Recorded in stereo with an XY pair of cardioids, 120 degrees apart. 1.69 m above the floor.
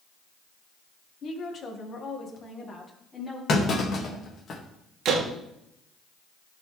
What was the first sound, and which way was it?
A woman speaking, 50° left.